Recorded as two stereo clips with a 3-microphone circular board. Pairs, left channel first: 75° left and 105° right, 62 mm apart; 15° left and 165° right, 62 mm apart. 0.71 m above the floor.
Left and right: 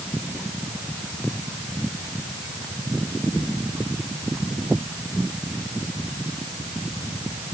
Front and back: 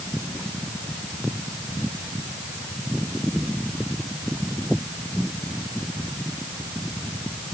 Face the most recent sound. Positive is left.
No sound to turn to.